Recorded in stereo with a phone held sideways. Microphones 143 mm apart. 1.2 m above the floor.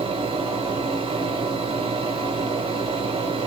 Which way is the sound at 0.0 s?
40° right (ahead or behind).